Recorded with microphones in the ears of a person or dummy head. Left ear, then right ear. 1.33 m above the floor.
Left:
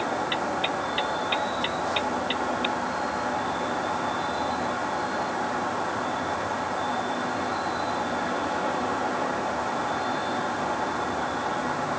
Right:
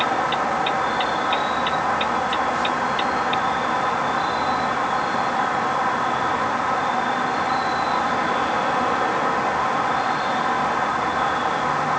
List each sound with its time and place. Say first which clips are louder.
0.0 s an insect: right 6 dB; 55° right (ahead or behind), 1.2 m